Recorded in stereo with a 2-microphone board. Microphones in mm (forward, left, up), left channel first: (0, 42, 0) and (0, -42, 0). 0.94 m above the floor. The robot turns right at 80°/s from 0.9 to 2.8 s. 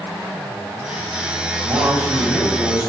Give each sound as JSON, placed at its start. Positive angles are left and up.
{"t": 1.6, "sound": "a man speaking", "azimuth_deg": -45, "distance_m": 7.0}